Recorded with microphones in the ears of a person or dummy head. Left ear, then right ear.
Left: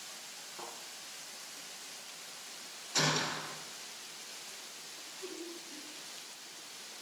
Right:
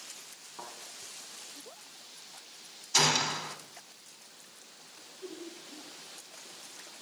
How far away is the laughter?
About 2.5 m.